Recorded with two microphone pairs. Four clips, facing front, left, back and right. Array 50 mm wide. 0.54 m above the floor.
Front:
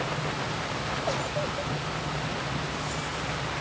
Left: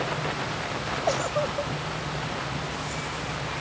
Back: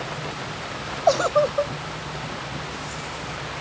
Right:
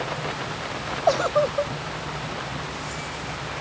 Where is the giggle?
155° right.